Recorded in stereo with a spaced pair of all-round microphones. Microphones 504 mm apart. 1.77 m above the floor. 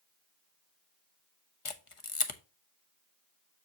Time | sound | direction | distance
1.6 | a camera shutter | 80° left | 1.0 m